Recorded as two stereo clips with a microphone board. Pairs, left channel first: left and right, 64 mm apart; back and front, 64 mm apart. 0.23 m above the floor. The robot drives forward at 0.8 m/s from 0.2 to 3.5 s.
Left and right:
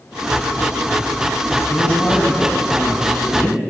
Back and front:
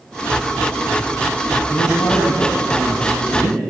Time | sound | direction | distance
1.7 | a woman speaking | 150° left | 4 m